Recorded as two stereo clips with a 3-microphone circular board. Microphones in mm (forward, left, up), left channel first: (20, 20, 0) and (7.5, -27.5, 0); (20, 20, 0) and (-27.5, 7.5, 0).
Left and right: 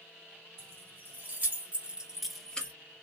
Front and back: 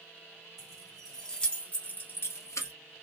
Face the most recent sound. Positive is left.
turn(degrees=10)